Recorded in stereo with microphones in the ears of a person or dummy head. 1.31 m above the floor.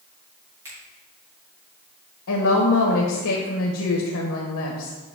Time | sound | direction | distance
0.7 | a finger snap | 15° right (ahead or behind) | 3 m
2.3 | a woman speaking | 75° left (ahead or behind) | 1.1 m